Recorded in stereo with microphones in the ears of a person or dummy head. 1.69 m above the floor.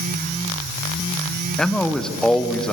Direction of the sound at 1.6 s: 5° left (ahead or behind).